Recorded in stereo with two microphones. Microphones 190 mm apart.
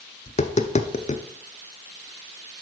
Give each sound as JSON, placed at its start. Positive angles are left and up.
{"t": 0.3, "sound": "tapping", "side_deg": 40, "distance_m": 0.7}